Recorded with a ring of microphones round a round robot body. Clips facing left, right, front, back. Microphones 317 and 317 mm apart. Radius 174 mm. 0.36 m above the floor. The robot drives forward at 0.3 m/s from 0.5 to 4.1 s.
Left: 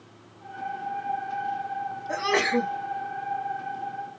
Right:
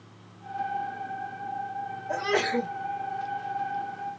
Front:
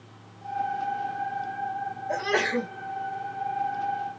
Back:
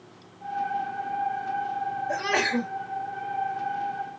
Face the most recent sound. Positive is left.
turn(degrees=135)